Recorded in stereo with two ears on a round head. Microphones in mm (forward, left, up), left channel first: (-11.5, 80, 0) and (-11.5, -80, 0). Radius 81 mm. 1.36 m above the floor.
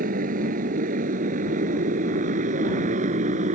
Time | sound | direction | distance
0.0 | a motorcycle | 50° right (ahead or behind) | ?